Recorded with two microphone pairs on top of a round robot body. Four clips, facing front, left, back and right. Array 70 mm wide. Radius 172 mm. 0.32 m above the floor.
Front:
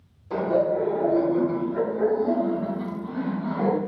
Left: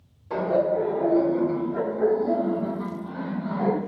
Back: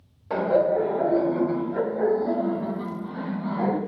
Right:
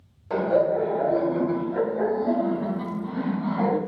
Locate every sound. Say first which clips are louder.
0.3 s laughter: right 1 dB, back 1 dB; 145° right, 3.5 m; by 3.8 s 110° right, 5.5 m